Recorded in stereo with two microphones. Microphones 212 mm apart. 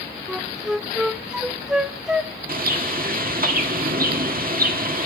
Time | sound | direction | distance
0.3 | a flute | 5° right (ahead or behind) | 0.6 m
2.5 | a bird | 40° right (ahead or behind) | 1.6 m